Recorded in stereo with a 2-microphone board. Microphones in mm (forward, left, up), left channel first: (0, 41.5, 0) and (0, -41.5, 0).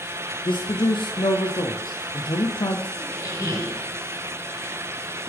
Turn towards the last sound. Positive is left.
turn(degrees=40)  # may be behind; listen again after turning